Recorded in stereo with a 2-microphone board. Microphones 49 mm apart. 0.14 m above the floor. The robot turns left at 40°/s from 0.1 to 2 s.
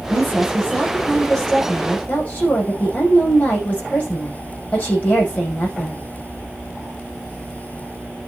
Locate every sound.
0.1 s a woman speaking: 135° right, 7.5 m; by 6.0 s 150° left, 7.5 m